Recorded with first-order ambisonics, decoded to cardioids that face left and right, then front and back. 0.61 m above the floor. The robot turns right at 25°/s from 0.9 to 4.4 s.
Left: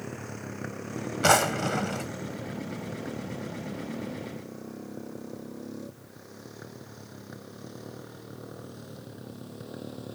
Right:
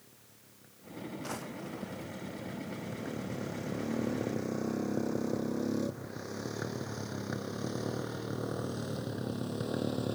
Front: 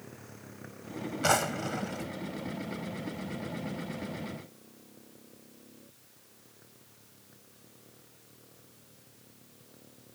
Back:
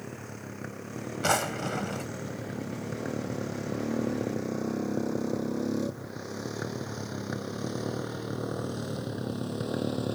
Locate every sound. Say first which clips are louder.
0.0 s a motorcycle: left 22 dB, back 8 dB; 120° left; by 10.2 s 160° right
1.2 s a drawer: left 22 dB, even; 90° left; by 2.1 s 110° left